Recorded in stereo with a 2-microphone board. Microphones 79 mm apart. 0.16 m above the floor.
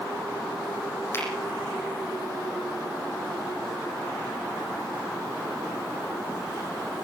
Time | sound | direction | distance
1.1 | a finger snap | 30° left (ahead or behind) | 7.5 m